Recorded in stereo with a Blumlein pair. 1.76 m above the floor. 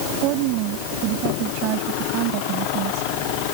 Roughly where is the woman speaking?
Ahead right.